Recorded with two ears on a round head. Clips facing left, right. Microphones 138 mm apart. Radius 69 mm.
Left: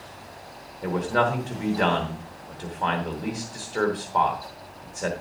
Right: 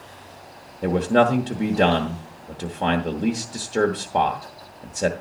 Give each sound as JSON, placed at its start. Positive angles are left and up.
{"t": 0.8, "sound": "a man speaking", "side_deg": -35, "distance_m": 1.0}